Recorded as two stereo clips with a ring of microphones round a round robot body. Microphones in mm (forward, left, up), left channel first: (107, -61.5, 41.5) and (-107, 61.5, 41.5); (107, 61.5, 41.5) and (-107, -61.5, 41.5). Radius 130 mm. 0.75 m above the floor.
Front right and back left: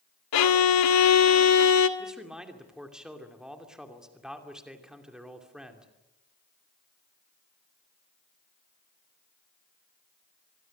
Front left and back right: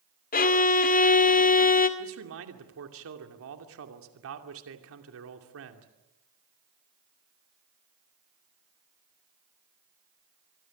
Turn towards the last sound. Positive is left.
turn(degrees=-125)